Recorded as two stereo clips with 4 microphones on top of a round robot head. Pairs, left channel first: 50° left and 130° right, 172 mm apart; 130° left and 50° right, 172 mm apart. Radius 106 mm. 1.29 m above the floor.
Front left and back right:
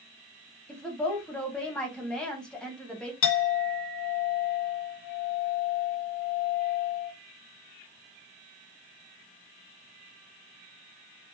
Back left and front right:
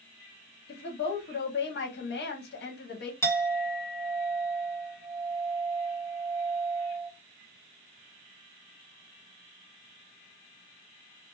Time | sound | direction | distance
0.7 | a woman speaking | 135° left | 1.2 m
3.2 | a clink | 55° left | 0.8 m